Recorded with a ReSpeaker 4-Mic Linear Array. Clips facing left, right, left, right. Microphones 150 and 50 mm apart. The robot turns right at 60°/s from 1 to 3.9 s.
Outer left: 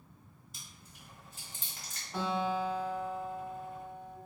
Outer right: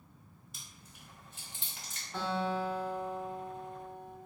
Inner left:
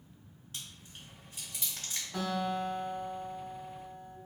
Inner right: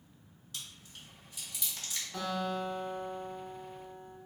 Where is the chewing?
40° left (ahead or behind), 1.4 m; by 2.0 s 30° left (ahead or behind), 1.4 m.